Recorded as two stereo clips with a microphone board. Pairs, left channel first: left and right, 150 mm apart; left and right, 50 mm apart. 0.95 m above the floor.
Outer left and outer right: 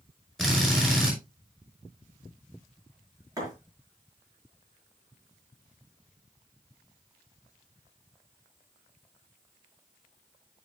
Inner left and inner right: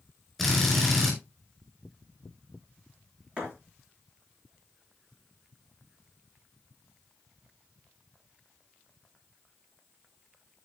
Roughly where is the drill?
Centre.